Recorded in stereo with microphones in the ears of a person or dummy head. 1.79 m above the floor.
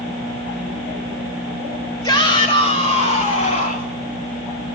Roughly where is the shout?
Left.